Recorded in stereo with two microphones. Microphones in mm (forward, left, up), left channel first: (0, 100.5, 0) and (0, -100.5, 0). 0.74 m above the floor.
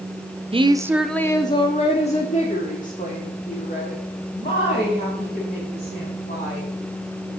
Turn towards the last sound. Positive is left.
turn(degrees=45)  # may be behind; listen again after turning